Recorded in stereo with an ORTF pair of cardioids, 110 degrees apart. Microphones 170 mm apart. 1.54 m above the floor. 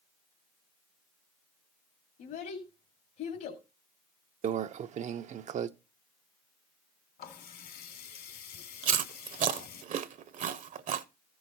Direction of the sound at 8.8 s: 50° right.